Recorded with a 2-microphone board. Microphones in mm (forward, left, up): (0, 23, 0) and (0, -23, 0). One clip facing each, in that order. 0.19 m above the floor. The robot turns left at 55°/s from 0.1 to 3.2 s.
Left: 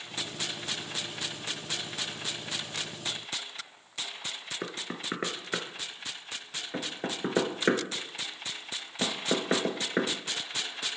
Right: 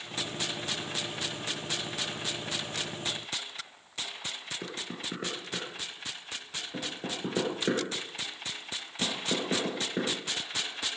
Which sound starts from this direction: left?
Knocking, at 4.6 s.